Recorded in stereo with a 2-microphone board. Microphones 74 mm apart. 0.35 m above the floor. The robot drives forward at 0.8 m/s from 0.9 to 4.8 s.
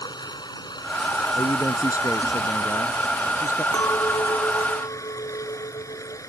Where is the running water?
75° left (ahead or behind); by 6.3 s 45° left (ahead or behind).